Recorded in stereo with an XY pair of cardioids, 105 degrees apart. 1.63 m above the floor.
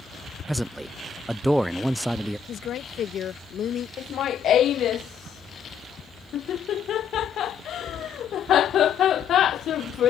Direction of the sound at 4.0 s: 65° left.